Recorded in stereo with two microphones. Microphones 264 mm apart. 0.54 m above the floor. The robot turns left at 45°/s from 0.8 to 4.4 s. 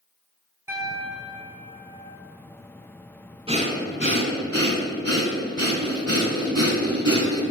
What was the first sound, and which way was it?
A piano, 10° right.